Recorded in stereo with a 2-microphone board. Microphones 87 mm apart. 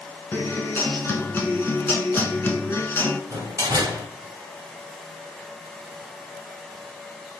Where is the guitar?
25° left (ahead or behind), 0.6 m.